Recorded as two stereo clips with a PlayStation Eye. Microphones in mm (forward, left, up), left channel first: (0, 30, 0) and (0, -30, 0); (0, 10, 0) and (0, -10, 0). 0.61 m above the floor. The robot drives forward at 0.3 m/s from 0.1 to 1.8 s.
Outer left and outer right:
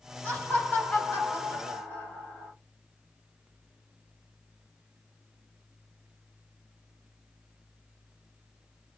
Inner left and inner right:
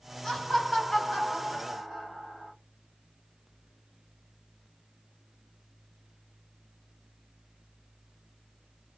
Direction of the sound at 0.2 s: 30° left (ahead or behind).